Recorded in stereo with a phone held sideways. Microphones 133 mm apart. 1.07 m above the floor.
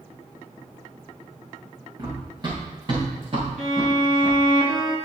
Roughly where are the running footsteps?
Right.